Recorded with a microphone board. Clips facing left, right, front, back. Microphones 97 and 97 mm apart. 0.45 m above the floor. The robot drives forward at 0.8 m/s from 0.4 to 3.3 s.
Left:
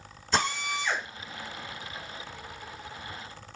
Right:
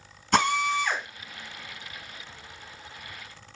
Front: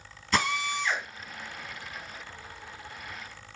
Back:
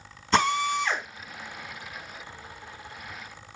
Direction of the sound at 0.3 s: 120° right.